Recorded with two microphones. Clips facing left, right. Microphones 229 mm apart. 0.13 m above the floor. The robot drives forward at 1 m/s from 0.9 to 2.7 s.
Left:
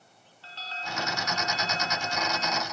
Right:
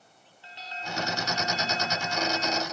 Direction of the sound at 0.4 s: 15° right (ahead or behind).